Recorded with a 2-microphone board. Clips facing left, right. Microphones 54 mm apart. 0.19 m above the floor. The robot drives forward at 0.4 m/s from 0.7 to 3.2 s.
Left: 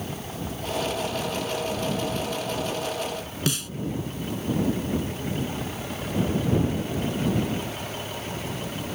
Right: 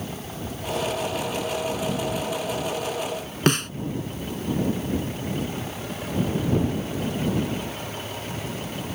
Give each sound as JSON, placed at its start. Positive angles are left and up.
{"t": 3.5, "sound": "a snare drum", "side_deg": -50}